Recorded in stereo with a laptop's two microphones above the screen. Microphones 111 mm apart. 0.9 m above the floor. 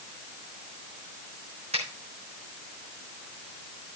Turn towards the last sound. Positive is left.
turn(degrees=-75)  # may be behind; listen again after turning